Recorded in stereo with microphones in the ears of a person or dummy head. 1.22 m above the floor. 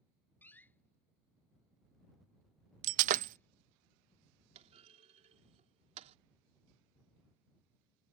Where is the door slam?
10° left (ahead or behind).